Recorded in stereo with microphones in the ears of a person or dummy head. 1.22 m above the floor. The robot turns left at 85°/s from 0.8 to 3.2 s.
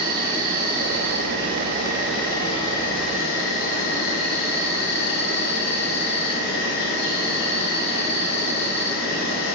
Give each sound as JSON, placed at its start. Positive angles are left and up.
{"t": 0.0, "sound": "an insect", "azimuth_deg": -60, "distance_m": 2.5}